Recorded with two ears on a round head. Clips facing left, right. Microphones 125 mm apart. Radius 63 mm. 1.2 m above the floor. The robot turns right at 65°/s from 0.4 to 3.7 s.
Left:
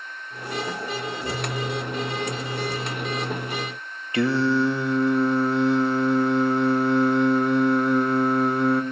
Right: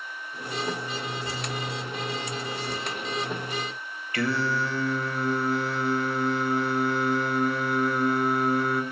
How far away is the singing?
About 0.8 m.